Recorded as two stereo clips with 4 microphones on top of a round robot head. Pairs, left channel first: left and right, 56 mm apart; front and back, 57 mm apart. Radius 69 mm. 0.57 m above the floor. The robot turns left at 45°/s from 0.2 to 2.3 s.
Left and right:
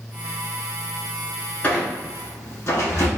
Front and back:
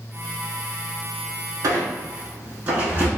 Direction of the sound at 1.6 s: 150° left.